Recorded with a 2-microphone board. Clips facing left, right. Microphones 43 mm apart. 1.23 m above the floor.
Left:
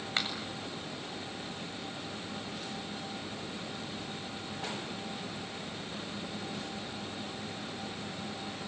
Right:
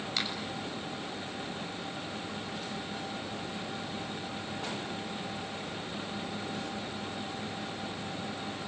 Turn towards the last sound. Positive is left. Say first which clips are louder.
# left 2 dB
turn(degrees=35)  # may be behind; listen again after turning